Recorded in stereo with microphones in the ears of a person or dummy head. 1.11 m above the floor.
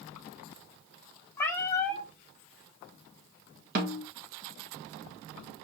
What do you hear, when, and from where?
1.4 s a cat meowing: 15° left (ahead or behind), 0.7 m
3.8 s a snare drum: 45° right (ahead or behind), 0.7 m